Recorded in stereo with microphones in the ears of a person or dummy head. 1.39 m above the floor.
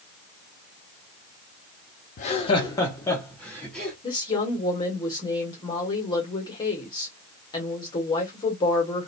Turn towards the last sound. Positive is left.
turn(degrees=25)  # may be behind; listen again after turning